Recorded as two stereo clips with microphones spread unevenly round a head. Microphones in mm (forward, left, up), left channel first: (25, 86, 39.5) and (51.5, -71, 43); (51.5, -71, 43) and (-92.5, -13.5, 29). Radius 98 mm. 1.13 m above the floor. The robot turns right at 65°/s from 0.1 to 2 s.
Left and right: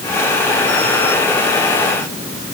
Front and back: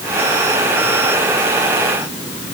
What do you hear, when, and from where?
Only background noise.